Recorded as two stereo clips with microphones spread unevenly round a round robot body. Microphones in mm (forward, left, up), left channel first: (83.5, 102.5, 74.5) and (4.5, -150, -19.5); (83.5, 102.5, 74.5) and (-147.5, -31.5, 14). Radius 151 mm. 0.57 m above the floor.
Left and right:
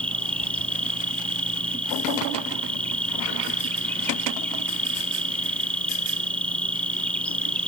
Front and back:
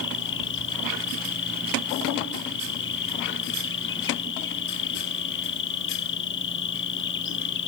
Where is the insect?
25° right.